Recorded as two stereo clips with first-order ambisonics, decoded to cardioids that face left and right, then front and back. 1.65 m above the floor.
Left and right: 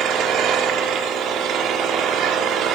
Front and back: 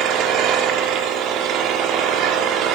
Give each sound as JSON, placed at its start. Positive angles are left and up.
{"t": 0.0, "sound": "an engine running", "azimuth_deg": -135, "distance_m": 3.5}